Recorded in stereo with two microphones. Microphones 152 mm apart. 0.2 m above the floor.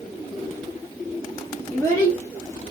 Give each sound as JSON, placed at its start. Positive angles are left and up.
{"t": 1.7, "sound": "a child speaking", "side_deg": 20, "distance_m": 2.0}